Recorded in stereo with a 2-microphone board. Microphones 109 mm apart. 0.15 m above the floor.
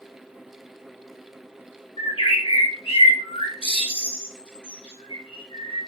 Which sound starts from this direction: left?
A bird, at 2.0 s.